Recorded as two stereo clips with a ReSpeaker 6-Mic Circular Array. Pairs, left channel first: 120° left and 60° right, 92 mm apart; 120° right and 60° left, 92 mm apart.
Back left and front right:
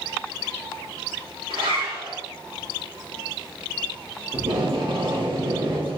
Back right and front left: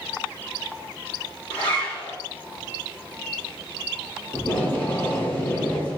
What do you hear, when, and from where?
1.5 s a zipper: 50° right, 1.9 m
4.3 s tape being pulled: 50° right, 1.1 m